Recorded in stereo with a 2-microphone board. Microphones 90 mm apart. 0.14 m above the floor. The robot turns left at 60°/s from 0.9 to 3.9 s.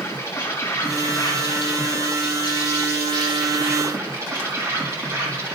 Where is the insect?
145° left, 4 m; by 5.5 s 35° right, 4 m.